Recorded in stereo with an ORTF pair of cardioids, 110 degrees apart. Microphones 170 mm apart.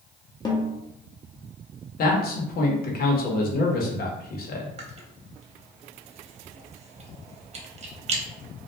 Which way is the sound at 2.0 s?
60° left.